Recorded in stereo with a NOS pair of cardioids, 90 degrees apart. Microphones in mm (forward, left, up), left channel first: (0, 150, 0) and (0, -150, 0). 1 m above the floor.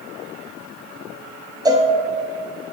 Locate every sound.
1.6 s a cowbell: 10° right, 0.8 m